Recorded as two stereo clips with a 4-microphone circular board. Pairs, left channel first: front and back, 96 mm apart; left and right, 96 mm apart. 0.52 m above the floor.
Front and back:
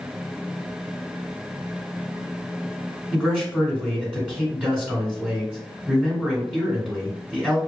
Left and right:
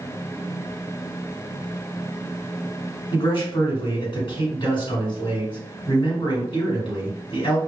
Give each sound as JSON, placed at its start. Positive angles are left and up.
{"t": 3.1, "sound": "a man speaking", "azimuth_deg": 100, "distance_m": 1.4}